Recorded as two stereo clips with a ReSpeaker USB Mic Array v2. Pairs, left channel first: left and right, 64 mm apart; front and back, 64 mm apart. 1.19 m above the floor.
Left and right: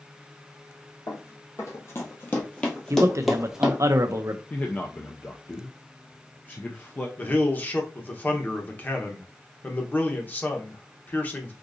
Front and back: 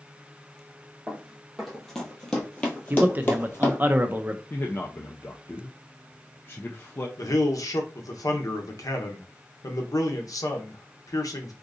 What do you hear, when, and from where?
1.1 s running footsteps: 100° left, 1.8 m; by 3.8 s 25° right, 1.5 m
2.9 s a man speaking: 120° right, 0.6 m
4.5 s a man speaking: 40° left, 0.5 m
7.2 s a man speaking: 30° left, 0.9 m